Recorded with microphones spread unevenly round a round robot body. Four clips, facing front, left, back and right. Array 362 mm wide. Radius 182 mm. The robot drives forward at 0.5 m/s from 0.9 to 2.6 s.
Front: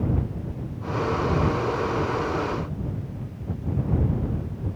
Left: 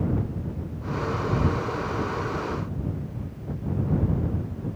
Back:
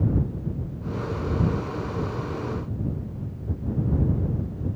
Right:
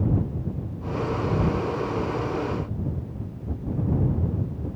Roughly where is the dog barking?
No dog barking in this recording.